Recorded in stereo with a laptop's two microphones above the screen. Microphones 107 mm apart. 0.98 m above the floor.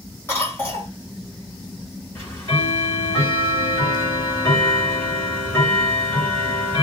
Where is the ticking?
25° left (ahead or behind), 1.3 m.